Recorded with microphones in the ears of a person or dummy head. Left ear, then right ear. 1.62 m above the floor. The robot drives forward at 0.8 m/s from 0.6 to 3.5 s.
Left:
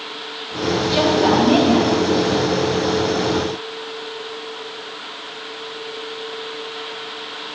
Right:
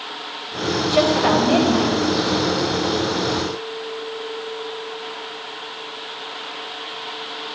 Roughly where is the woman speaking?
Right.